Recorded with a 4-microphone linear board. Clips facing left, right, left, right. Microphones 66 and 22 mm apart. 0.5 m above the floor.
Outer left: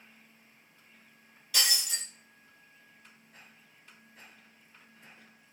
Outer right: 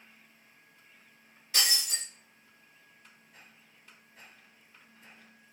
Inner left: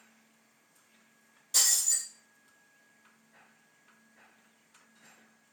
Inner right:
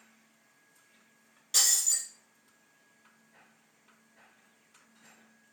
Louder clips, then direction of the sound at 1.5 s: Even, inner right 1 dB; 30° right (ahead or behind).